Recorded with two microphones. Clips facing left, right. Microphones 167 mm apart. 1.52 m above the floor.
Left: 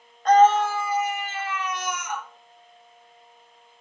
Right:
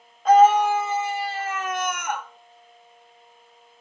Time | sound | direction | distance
0.2 | a scream | 5° right (ahead or behind) | 1.4 m